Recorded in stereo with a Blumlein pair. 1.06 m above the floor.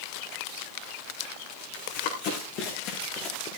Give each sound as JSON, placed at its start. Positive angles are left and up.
{"t": 1.7, "sound": "running footsteps", "azimuth_deg": 50, "distance_m": 5.0}